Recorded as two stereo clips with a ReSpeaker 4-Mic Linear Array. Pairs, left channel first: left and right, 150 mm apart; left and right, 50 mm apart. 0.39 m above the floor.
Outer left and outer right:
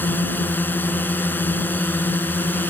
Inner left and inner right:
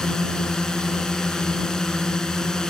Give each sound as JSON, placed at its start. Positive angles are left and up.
{"t": 0.0, "sound": "a drone", "side_deg": 15}